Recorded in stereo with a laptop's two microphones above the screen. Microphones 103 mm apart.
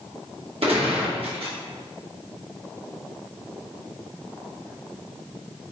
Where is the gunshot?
65° right (ahead or behind), 1.0 m.